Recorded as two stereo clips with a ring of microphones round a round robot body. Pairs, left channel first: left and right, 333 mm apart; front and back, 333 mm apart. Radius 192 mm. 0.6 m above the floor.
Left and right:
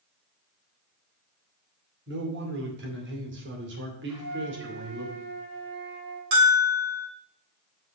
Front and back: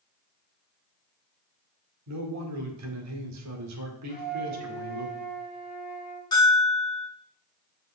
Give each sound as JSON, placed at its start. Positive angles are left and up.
{"t": 2.1, "sound": "a man speaking", "azimuth_deg": -145, "distance_m": 2.0}
{"t": 4.1, "sound": "a flute", "azimuth_deg": -70, "distance_m": 5.5}
{"t": 6.3, "sound": "a bell", "azimuth_deg": -80, "distance_m": 2.5}